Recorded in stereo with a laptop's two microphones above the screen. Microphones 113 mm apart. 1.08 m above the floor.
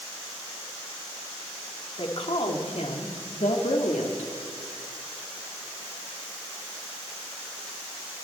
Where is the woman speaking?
50° left (ahead or behind), 2.5 m; by 4.3 s 85° left, 2 m.